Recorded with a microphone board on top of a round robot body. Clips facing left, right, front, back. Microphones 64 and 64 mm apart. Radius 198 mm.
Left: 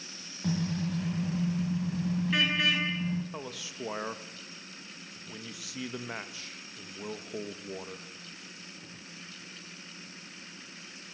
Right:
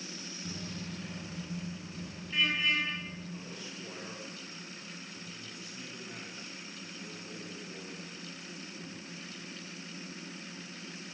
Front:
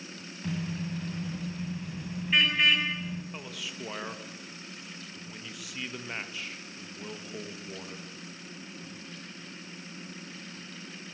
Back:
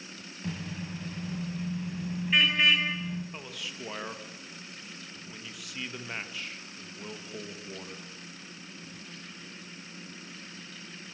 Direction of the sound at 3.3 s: 90° left.